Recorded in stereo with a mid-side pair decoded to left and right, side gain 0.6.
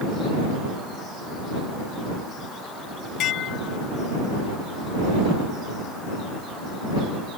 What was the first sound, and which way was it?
Dishes clattering, 60° left.